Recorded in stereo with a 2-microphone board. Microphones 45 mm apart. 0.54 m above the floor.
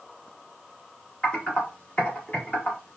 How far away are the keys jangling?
No keys jangling in this recording.